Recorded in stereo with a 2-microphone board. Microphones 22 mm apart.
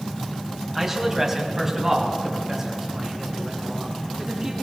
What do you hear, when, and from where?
0.8 s a man speaking: 15° right (ahead or behind), 3 m; by 4.5 s 25° right (ahead or behind), 7 m